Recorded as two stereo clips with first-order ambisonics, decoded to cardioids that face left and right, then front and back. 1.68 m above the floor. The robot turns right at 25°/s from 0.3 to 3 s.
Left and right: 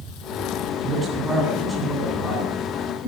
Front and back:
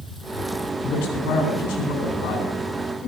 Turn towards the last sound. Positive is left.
turn(degrees=35)